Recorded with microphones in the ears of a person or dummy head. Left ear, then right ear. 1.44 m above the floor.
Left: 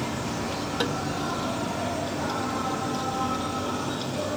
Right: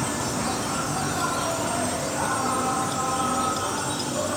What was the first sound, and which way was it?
An insect, 50° right (ahead or behind).